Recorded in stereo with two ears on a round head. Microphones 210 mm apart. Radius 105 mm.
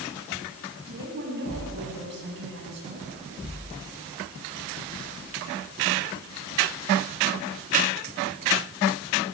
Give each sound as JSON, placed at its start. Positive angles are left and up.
{"t": 0.9, "sound": "a woman speaking", "side_deg": -50, "distance_m": 7.5}